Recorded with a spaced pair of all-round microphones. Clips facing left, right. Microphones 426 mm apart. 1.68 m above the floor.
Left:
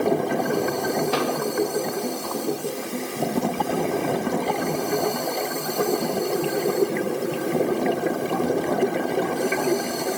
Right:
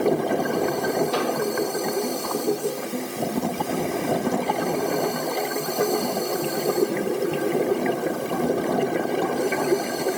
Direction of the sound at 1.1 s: 80° left.